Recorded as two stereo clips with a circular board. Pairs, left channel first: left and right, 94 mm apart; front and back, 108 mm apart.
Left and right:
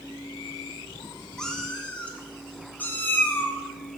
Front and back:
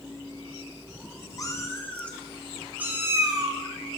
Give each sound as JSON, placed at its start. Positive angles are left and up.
{"t": 1.4, "sound": "a cat meowing", "azimuth_deg": 10, "distance_m": 0.9}